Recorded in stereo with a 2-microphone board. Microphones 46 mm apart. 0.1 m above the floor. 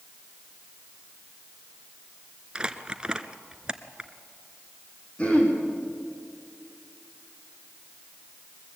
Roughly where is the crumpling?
Right.